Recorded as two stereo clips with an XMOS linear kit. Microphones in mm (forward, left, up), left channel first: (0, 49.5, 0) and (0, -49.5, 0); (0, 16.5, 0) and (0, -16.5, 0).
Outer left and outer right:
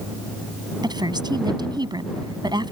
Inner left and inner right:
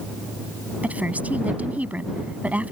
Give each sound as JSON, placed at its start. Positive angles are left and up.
{"t": 0.8, "sound": "a woman speaking", "side_deg": -45}